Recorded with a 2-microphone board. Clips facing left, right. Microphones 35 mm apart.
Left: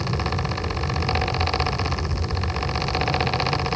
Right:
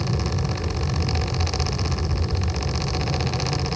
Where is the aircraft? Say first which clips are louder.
Left 1 dB; centre (ahead or behind).